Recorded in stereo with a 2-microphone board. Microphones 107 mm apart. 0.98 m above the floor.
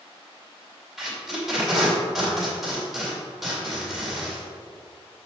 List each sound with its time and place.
1.0 s tape being pulled: centre (ahead or behind), 2.5 m